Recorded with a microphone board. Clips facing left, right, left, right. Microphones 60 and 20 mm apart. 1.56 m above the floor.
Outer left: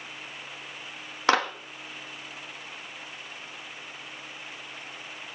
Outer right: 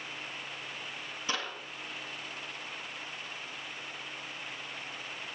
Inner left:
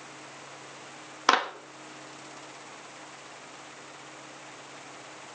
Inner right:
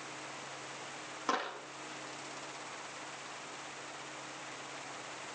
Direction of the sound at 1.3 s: 80° left.